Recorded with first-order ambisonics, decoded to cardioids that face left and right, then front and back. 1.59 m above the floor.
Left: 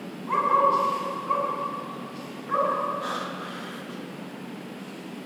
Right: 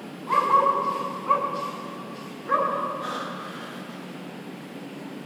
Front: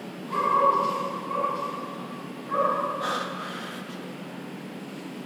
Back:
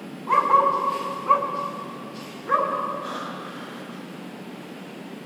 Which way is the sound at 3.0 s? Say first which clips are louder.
Even, front 3 dB; 5° left.